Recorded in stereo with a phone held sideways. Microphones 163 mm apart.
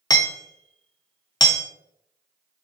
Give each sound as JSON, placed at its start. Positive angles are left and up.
{"t": 0.1, "sound": "hammering", "side_deg": 25, "distance_m": 0.5}